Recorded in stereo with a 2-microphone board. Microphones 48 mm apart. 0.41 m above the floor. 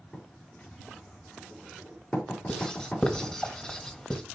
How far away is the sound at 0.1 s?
About 7.5 m.